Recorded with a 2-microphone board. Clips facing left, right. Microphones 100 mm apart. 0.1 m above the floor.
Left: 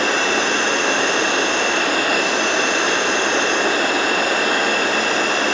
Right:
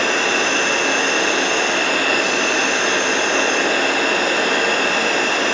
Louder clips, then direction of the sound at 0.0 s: Even; 15° left (ahead or behind).